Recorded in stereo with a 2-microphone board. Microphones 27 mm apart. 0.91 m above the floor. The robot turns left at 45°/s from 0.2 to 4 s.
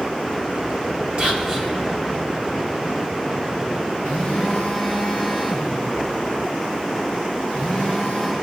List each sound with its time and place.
1.2 s whispering: 40° right (ahead or behind), 2.5 m; by 1.7 s 20° right (ahead or behind), 2.5 m
4.0 s a phone buzzing: 75° left (ahead or behind), 5 m